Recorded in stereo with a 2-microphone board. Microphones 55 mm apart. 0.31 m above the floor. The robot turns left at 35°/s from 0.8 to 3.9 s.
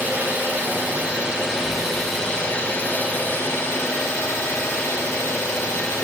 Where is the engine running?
140° right, 2 m; by 6.0 s 110° left, 2 m.